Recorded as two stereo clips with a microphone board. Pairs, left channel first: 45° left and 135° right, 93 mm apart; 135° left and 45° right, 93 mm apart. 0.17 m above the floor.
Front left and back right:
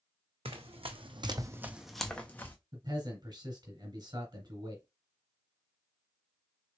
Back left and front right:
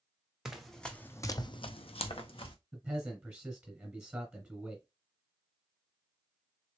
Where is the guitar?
No guitar in this recording.